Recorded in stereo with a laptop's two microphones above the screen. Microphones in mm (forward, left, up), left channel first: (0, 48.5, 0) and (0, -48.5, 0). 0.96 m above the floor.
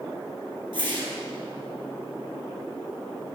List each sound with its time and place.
0.7 s a whoosh: 55° right (ahead or behind), 3.5 m